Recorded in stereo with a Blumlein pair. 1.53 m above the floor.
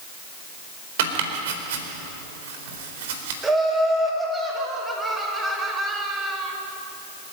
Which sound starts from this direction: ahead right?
Chopping, at 1.0 s.